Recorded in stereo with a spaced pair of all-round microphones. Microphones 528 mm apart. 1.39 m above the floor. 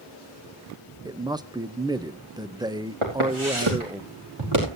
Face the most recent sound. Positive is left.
turn(degrees=-55)  # may be behind; listen again after turning